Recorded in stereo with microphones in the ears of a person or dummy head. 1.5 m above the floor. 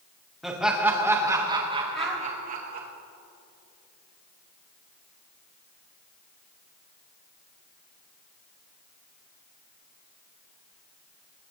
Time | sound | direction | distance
0.4 | laughter | centre (ahead or behind) | 2.0 m
1.9 | a child speaking | centre (ahead or behind) | 4 m